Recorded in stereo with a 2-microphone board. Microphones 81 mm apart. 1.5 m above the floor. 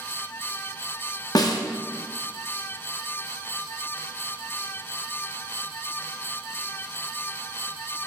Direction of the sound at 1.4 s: 55° left (ahead or behind).